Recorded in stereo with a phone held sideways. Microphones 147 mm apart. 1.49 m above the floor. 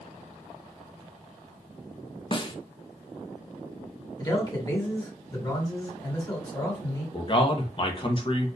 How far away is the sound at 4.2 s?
About 1.6 m.